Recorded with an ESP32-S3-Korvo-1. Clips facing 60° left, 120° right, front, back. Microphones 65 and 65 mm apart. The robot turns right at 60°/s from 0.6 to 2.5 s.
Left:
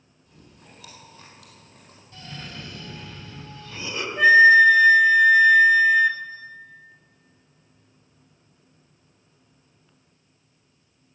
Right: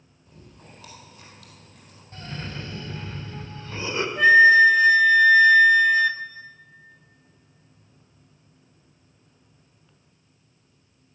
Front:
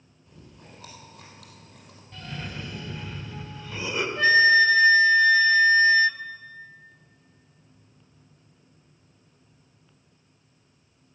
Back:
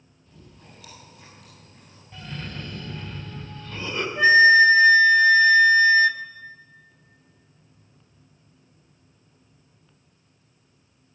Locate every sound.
0.3 s chewing: 75° right, 4 m; by 2.0 s 10° left, 4 m
2.1 s a cough: 100° right, 1.5 m; by 4.1 s 75° right, 1.5 m
4.2 s a flute: 145° left, 0.7 m